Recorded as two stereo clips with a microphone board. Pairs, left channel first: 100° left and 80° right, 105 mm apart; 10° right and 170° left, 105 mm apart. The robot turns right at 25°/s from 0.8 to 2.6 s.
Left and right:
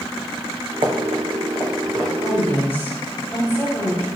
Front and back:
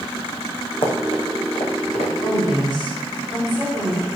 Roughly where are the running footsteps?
Ahead right.